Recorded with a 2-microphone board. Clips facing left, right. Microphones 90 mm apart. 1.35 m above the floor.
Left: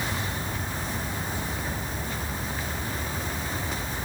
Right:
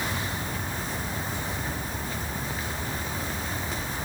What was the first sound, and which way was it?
Only background noise.